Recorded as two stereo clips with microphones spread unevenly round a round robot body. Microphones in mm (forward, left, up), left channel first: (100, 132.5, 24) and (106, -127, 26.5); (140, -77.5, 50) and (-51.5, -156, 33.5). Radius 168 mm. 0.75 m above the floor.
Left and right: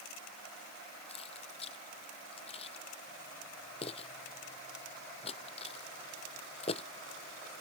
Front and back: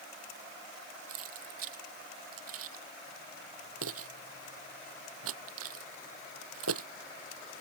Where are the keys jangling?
165° left.